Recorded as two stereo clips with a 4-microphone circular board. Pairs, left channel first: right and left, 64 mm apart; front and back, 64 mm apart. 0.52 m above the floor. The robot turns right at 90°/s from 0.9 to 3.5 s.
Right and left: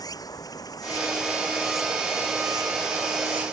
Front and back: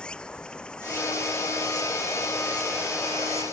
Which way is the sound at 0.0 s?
75° right.